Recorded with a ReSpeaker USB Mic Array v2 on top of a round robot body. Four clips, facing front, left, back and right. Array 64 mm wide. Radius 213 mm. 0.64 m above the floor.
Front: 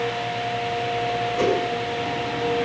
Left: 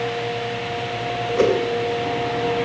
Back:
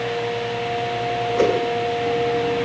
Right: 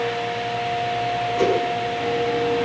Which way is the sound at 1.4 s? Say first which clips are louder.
Left 3 dB, back 3 dB; 135° left.